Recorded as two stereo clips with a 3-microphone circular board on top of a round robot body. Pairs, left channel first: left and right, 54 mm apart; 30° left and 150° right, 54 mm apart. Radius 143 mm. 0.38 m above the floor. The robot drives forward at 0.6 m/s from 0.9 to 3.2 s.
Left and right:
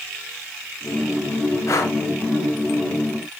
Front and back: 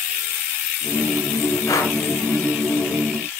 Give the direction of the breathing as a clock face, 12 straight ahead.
10 o'clock.